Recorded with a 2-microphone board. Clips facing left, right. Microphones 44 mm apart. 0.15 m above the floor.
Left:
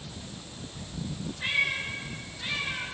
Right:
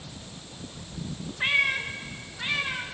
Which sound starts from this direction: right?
A cat meowing, at 1.4 s.